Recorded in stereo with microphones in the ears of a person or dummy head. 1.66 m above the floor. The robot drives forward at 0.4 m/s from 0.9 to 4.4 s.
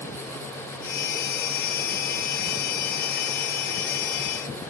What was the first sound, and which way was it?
Only background noise.